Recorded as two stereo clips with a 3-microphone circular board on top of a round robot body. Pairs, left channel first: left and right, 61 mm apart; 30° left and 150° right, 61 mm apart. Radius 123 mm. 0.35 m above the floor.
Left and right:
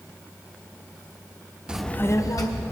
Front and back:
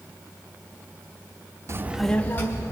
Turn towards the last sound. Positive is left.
turn(degrees=80)